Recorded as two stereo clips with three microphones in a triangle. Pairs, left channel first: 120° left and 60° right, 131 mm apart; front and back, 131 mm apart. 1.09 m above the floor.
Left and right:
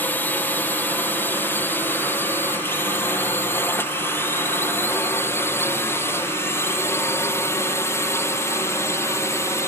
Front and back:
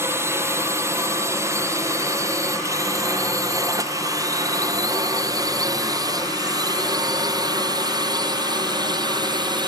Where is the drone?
165° left; by 9.7 s 175° left.